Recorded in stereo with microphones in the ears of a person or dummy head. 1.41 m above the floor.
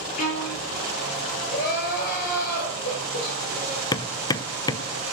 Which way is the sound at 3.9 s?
25° left (ahead or behind).